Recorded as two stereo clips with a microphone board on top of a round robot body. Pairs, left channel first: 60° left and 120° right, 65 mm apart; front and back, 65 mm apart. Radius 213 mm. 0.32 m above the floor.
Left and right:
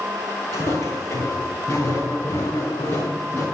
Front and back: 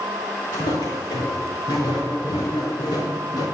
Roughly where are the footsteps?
Ahead.